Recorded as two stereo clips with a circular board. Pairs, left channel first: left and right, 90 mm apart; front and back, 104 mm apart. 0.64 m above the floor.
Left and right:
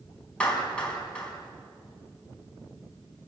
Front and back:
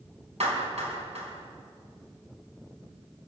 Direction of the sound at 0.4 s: 170° left.